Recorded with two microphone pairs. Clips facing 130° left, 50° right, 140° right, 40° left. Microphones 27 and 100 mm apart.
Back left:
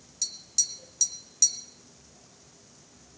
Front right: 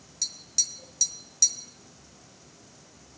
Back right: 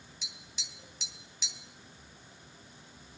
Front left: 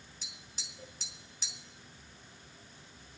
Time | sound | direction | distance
0.2 | tapping | 20° left | 1.6 m